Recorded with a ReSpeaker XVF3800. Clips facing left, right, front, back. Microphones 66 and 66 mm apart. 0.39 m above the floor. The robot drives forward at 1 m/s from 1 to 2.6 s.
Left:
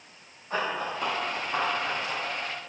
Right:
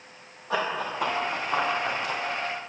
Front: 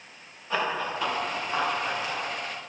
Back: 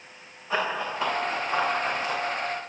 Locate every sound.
0.5 s running footsteps: 100° right, 4 m; by 2.2 s 125° right, 4 m